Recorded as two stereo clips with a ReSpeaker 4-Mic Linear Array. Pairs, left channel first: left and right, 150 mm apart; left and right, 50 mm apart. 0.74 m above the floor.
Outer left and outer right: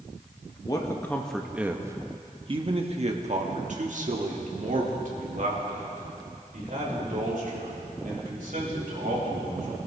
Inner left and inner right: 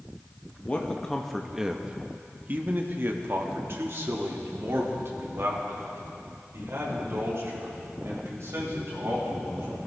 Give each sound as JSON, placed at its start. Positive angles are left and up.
{"t": 0.7, "sound": "a man speaking", "side_deg": 25, "distance_m": 0.8}